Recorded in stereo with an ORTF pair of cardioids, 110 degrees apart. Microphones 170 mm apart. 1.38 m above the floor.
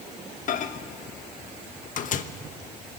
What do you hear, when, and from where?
0.5 s a microwave: 50° left, 1.1 m